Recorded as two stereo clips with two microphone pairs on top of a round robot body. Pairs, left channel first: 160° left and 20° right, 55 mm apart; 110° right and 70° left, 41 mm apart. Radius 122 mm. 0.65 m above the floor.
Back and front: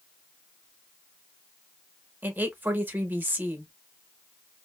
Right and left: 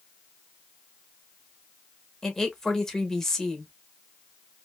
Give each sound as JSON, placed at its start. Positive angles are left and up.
{"t": 2.2, "sound": "a woman speaking", "azimuth_deg": -30, "distance_m": 1.1}